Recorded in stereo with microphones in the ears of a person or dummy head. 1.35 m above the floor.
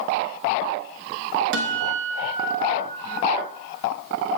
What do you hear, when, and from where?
1.5 s a guitar: 70° right (ahead or behind), 1.3 m